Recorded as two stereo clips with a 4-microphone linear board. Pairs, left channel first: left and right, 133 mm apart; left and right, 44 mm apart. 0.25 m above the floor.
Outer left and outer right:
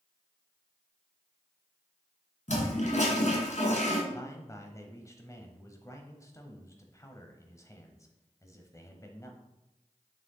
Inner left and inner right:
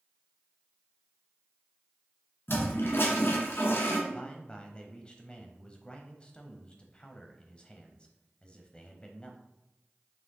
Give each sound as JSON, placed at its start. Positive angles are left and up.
{"t": 2.5, "sound": "a toilet flushing", "side_deg": 65, "distance_m": 1.6}
{"t": 4.1, "sound": "a man speaking", "side_deg": 25, "distance_m": 1.0}